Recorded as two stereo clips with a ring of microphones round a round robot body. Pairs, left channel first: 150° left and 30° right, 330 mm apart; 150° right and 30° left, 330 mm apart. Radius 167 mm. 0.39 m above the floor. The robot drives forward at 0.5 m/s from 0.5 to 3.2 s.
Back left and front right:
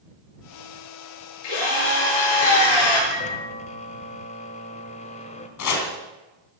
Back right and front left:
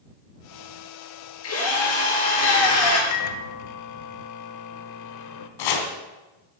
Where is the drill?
155° left, 8 m; by 3.0 s 160° left, 9 m.